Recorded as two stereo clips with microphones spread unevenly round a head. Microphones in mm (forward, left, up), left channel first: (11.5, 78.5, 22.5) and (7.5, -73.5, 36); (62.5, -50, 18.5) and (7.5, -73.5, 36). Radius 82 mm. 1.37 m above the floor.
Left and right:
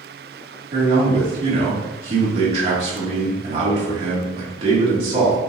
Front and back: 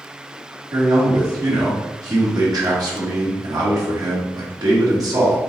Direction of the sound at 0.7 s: 145° right.